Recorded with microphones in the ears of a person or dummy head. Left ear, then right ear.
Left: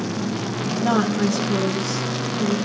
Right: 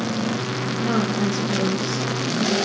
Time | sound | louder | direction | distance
0.8 | a woman speaking | left 3 dB | 50° left (ahead or behind) | 2 m